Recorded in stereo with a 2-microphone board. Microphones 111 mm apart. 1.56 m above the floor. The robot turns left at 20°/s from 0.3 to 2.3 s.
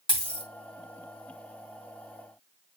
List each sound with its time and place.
0.1 s a dropped coin: 45° left (ahead or behind), 2.5 m; by 0.5 s 50° left (ahead or behind), 2.5 m